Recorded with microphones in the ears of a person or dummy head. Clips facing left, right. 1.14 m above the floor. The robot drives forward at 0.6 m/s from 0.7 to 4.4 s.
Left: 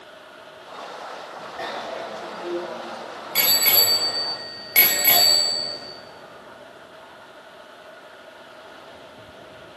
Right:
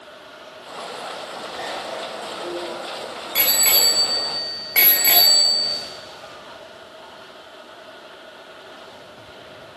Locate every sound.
1.6 s a bicycle bell: 5° left (ahead or behind), 3.5 m; by 5.8 s 10° left (ahead or behind), 1.9 m